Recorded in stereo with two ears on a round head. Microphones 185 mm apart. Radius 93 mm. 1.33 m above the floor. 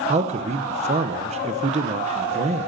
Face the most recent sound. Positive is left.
turn(degrees=-30)  # may be behind; listen again after turning